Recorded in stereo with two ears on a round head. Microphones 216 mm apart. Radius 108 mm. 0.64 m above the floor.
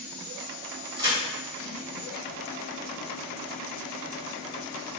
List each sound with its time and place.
1.0 s a crack: 20° right (ahead or behind), 1.8 m